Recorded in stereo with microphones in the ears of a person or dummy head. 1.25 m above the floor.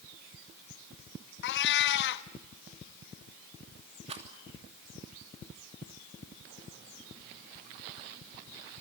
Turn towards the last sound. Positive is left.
turn(degrees=-35)  # may be behind; listen again after turning